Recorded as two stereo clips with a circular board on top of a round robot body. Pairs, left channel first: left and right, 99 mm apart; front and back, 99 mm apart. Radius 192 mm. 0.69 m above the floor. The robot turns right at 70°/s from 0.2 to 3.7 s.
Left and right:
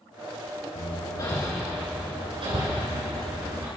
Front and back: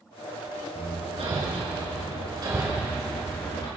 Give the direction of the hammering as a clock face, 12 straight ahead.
8 o'clock.